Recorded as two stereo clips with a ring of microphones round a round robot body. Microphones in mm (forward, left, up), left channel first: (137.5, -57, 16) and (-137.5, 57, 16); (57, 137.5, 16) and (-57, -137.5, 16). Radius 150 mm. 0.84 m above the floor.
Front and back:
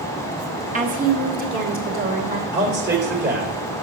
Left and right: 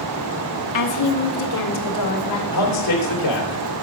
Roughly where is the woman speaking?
Left.